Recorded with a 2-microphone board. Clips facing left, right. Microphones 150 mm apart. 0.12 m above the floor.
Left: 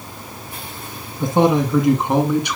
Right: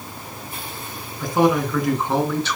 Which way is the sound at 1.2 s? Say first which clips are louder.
Left 2 dB; 25° left (ahead or behind).